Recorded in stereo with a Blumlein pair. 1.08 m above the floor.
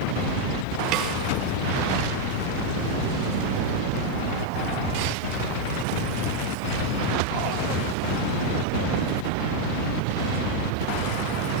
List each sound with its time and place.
0.9 s a snare drum: 35° right, 4 m